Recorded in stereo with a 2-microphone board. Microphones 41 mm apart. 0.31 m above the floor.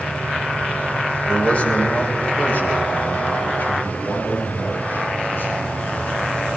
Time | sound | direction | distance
1.3 | a man speaking | 35° left (ahead or behind) | 1.9 m